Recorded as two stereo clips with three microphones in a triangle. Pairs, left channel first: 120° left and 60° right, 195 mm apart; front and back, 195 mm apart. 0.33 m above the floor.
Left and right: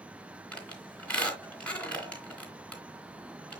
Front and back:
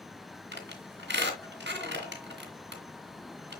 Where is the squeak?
155° right, 3 m.